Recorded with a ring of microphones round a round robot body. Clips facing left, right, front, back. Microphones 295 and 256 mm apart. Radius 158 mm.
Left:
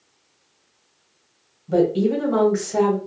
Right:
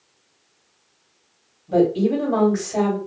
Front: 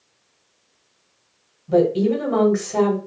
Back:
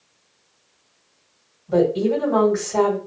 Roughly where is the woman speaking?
Ahead.